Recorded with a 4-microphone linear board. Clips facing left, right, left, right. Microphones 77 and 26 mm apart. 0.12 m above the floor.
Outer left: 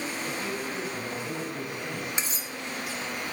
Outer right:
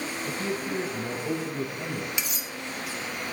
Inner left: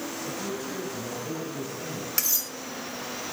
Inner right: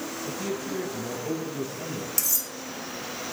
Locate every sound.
0.3 s a man speaking: 35° right (ahead or behind), 1.3 m; by 2.1 s 20° right (ahead or behind), 3 m
2.2 s cutlery clinking: 35° left (ahead or behind), 0.9 m